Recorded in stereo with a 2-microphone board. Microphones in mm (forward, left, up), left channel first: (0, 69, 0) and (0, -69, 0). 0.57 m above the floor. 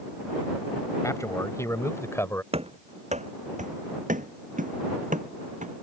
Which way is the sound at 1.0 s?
25° left (ahead or behind).